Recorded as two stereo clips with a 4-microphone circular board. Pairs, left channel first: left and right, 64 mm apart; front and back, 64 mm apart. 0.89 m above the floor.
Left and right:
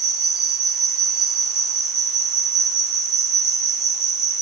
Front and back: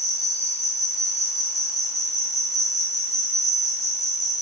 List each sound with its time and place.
0.0 s an insect: 5° right, 4.5 m